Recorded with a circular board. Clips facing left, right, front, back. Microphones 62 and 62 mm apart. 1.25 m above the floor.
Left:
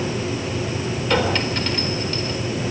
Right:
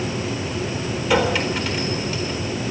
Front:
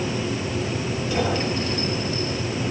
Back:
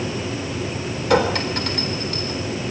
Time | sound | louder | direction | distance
1.1 | a clink | right 2 dB, back 6 dB | 175° right | 3.5 m